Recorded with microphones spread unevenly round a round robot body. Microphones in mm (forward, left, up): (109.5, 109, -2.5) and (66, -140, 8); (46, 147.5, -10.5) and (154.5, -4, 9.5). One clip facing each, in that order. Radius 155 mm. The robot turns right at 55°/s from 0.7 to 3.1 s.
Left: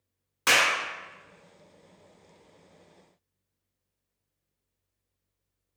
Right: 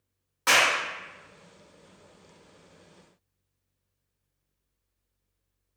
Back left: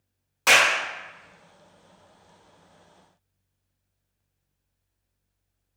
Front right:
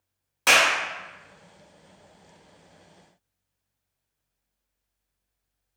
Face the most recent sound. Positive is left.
turn(degrees=165)